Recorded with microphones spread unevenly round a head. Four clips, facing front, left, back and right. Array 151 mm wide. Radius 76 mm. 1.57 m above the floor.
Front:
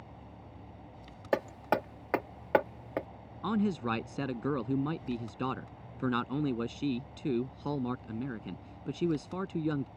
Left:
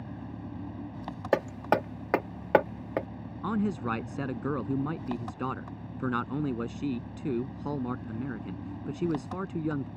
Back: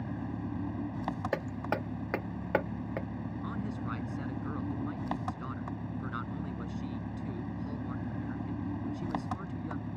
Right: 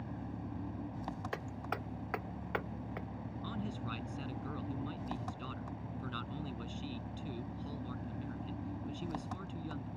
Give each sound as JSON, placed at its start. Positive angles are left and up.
{"t": 0.0, "sound": "an engine running", "azimuth_deg": 165}
{"t": 1.3, "sound": "hammering", "azimuth_deg": 80}
{"t": 3.4, "sound": "a man speaking", "azimuth_deg": 45}